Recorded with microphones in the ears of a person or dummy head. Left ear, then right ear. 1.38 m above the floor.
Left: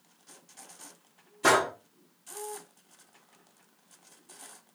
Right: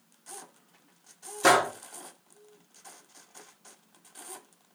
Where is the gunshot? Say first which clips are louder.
Right 2 dB; 15° right (ahead or behind), 1.6 m.